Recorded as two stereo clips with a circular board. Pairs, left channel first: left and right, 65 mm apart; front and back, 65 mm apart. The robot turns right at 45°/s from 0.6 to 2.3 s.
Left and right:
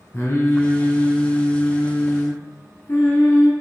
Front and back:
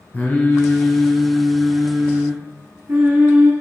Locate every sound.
0.1 s singing: 55° left, 1.2 m; by 3.5 s 130° left, 1.2 m